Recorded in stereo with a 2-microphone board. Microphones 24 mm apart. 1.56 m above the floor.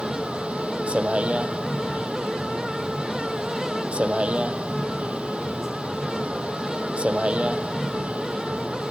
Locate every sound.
0.0 s a vehicle: 60° right (ahead or behind)